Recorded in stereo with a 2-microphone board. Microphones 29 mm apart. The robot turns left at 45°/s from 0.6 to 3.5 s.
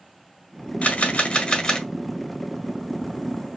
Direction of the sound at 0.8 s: 65° left.